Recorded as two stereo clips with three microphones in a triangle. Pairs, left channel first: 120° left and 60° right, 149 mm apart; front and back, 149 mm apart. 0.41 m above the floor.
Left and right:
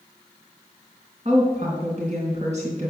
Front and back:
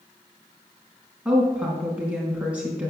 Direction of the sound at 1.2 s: 100° right.